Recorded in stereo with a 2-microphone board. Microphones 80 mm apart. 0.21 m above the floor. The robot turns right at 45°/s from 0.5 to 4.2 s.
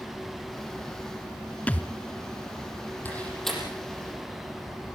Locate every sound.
1.7 s a thud: 20° left (ahead or behind), 0.7 m; by 1.9 s 25° left (ahead or behind), 0.7 m
3.0 s a door slam: 25° left (ahead or behind), 6 m; by 3.6 s centre (ahead or behind), 6 m